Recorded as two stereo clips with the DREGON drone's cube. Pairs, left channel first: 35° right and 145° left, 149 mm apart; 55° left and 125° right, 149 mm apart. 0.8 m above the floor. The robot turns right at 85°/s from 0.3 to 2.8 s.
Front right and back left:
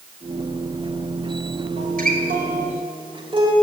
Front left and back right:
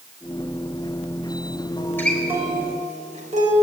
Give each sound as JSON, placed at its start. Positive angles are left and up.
{"t": 1.8, "sound": "a guitar", "azimuth_deg": 110, "distance_m": 4.0}